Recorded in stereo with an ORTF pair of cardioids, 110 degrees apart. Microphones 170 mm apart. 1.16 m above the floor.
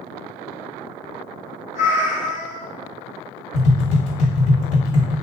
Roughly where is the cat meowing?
Ahead left.